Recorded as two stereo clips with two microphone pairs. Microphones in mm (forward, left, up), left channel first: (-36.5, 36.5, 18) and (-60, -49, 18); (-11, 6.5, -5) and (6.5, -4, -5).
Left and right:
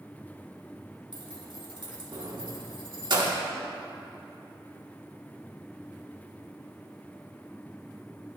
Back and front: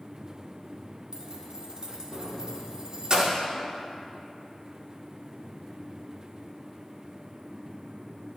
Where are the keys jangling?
80° right, 1.8 m.